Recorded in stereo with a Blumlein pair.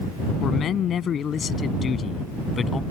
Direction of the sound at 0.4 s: 25° left.